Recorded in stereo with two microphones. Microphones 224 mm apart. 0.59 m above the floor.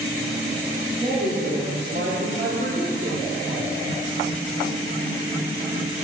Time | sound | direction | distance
1.0 | a man speaking | 45° right (ahead or behind) | 1.6 m